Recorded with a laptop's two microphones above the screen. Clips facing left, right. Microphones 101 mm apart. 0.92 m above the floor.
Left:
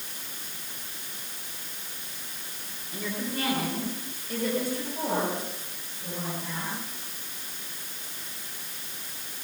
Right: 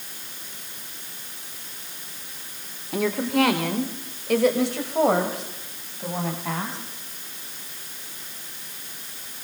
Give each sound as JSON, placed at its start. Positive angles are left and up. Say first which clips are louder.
{"t": 2.9, "sound": "a woman speaking", "louder": "right 11 dB", "side_deg": -70, "distance_m": 2.5}